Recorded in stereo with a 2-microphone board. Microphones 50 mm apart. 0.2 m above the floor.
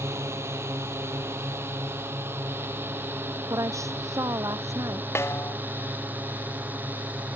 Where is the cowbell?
No cowbell in this recording.